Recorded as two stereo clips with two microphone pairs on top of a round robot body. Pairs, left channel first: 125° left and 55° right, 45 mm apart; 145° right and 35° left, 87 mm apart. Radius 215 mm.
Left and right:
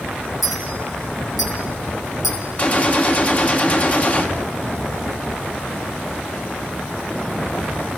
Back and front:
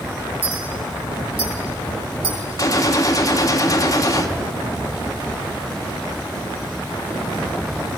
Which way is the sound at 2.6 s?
175° left.